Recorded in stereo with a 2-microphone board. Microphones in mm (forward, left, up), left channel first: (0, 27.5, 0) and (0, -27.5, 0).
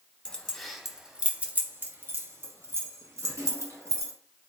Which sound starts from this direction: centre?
Keys jangling, at 0.2 s.